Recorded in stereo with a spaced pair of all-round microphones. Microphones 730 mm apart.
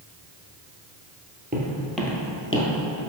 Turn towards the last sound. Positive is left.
turn(degrees=30)  # may be behind; listen again after turning